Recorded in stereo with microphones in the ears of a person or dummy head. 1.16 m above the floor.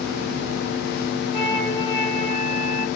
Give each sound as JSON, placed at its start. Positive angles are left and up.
{"t": 1.3, "sound": "a flute", "side_deg": 30, "distance_m": 4.0}